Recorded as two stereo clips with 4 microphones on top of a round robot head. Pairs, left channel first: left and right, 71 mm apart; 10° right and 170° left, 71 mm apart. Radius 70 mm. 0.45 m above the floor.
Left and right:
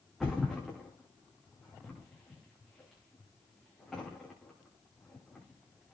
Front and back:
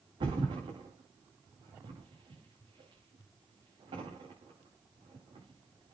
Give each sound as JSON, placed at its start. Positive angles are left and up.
{"t": 0.2, "sound": "a thud", "azimuth_deg": 180, "distance_m": 8.5}